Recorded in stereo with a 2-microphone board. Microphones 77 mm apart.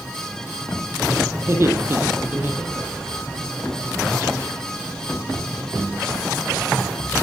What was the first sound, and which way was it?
Laughter, 35° right (ahead or behind).